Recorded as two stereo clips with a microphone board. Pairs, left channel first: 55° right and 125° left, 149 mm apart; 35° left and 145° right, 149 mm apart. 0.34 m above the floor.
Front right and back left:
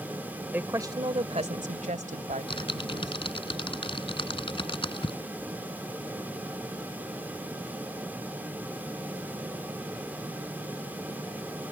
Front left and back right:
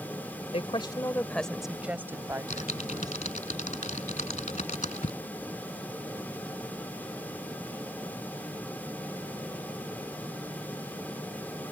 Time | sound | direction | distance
0.5 | a woman speaking | 50° left | ?
2.3 | typing on a keyboard | straight ahead | ?